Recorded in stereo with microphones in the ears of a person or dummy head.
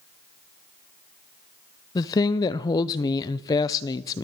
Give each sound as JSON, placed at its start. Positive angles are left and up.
{"t": 1.9, "sound": "a woman speaking", "side_deg": 20, "distance_m": 0.5}